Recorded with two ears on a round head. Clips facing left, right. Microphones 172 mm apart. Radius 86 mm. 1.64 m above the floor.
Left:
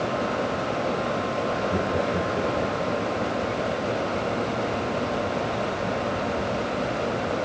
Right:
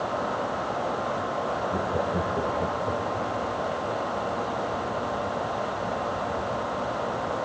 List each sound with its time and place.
1.7 s laughter: 25° left (ahead or behind), 0.8 m; by 3.3 s 20° right (ahead or behind), 2.5 m